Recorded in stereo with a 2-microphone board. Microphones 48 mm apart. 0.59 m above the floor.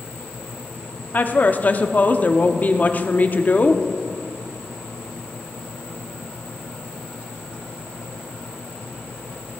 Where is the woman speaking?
35° left (ahead or behind), 0.8 m.